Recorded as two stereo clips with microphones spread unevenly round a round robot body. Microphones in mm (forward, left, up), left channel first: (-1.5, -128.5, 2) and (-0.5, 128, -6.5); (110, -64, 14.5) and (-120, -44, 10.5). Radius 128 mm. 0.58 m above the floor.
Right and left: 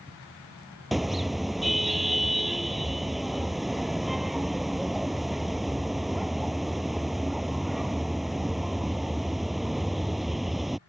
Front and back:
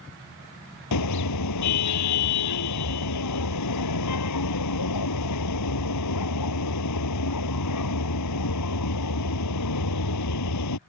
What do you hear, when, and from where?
0.9 s a car horn: straight ahead